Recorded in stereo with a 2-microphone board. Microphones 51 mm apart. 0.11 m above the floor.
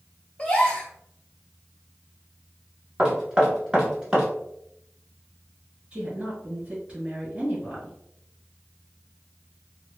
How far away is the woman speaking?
About 1.9 m.